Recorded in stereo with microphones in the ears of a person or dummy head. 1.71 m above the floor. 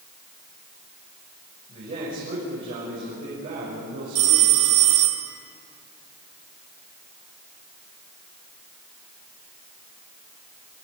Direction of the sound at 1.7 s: 40° right (ahead or behind).